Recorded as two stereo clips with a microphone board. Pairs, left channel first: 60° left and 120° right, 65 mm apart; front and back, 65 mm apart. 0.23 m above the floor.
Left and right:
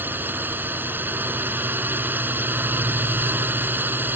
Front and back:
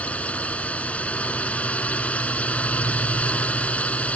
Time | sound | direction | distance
0.0 | a drone | 65° right | ?